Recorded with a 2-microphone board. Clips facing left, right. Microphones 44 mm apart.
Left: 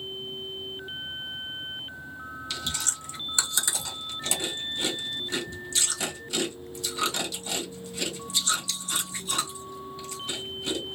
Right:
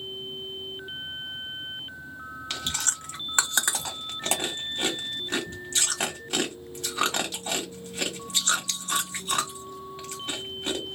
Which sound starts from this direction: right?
Chewing, at 2.5 s.